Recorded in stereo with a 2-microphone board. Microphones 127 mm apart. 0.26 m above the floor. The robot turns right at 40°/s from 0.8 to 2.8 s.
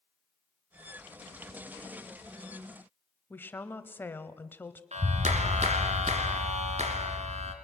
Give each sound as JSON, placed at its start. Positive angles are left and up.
{"t": 3.3, "sound": "a woman speaking", "side_deg": 15, "distance_m": 1.1}
{"t": 4.9, "sound": "a clap", "side_deg": -60, "distance_m": 3.0}